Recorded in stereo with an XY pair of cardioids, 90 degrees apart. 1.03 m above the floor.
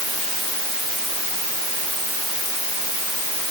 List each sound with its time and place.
Only background noise.